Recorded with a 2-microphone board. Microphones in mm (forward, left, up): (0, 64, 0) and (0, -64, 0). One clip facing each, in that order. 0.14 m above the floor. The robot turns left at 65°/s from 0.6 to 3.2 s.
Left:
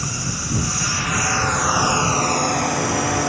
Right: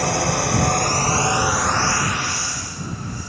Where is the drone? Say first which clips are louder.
Right 9 dB; 115° right; by 3.3 s 75° left.